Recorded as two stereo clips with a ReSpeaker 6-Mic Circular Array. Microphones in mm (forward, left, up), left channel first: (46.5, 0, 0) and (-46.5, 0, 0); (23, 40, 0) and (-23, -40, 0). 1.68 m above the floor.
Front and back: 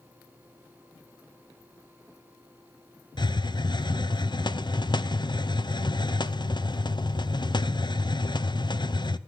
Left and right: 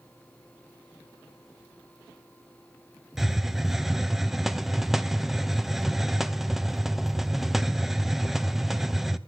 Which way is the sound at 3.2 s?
35° right.